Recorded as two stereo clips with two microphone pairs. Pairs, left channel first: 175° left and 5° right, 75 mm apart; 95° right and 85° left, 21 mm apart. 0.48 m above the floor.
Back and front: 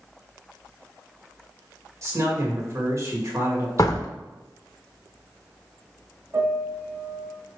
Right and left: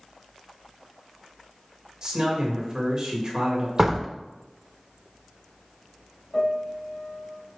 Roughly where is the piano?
Ahead right.